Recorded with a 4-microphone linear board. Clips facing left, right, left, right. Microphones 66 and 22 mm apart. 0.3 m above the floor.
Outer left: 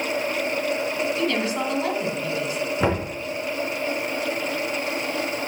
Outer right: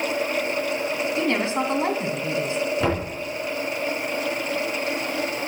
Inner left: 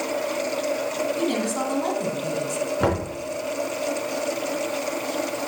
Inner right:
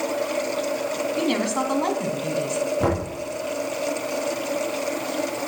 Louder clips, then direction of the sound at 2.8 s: Outer left 4 dB, inner left 3 dB; 25° left (ahead or behind).